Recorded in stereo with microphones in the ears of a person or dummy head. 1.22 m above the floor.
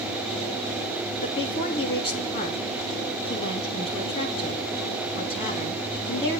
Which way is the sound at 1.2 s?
40° left (ahead or behind).